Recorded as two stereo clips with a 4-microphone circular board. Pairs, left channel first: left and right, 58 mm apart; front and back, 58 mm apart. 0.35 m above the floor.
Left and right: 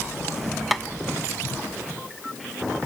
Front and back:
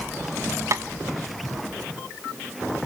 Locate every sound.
0.7 s tapping: straight behind, 0.6 m